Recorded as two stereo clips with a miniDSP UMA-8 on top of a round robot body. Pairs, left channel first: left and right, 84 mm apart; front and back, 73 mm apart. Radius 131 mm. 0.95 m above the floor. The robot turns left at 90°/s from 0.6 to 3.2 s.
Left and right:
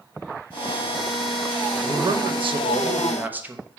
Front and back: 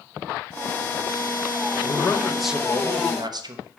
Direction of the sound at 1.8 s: 35° right.